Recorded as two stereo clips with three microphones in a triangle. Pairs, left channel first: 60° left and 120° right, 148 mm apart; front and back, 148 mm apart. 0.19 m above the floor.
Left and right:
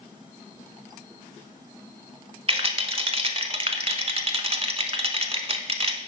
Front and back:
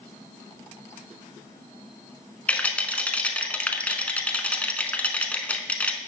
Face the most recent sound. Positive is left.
turn(degrees=-80)